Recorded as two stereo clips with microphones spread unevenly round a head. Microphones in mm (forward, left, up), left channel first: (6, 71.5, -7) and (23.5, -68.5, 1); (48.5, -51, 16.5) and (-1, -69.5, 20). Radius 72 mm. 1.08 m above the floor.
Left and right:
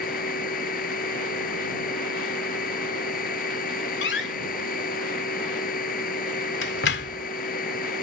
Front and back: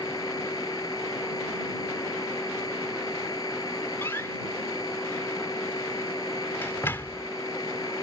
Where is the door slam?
90° left.